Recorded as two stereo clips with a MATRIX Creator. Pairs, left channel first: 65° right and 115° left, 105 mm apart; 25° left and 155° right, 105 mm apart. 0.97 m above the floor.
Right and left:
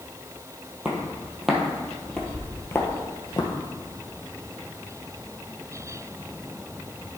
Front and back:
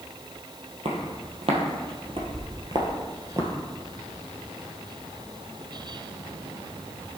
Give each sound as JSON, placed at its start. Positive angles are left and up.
{"t": 0.8, "sound": "footsteps", "azimuth_deg": -165, "distance_m": 1.9}